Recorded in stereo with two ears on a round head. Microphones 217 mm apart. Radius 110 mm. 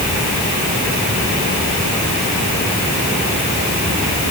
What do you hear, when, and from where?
Only background noise.